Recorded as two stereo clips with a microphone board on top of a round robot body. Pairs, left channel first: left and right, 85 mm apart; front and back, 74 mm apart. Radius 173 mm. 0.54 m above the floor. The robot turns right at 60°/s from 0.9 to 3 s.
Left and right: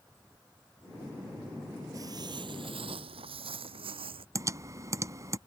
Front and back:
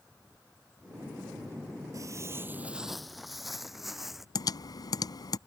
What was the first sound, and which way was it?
Footsteps, 140° right.